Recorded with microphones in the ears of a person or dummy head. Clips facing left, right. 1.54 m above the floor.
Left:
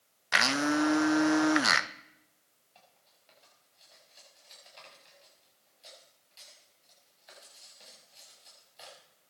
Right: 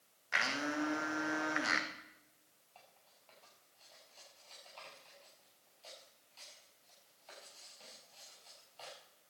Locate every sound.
0.3 s a blender: 75° left (ahead or behind), 0.9 m
2.8 s cutlery clinking: 20° left (ahead or behind), 7 m